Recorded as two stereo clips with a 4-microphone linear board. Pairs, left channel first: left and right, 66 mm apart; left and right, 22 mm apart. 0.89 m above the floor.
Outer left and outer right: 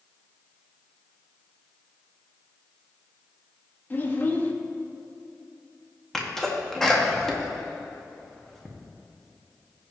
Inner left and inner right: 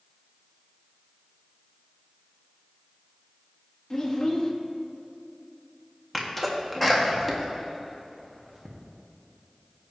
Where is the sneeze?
5° left (ahead or behind), 1.4 m.